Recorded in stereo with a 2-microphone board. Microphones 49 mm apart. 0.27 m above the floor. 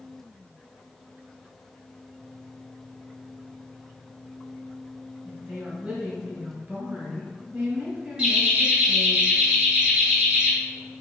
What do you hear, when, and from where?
5.2 s a woman speaking: 30° right (ahead or behind), 1.2 m
8.2 s laughter: 20° right (ahead or behind), 1.0 m